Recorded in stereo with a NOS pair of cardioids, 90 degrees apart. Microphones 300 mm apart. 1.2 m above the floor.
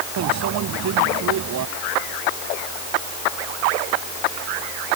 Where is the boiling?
No boiling in this recording.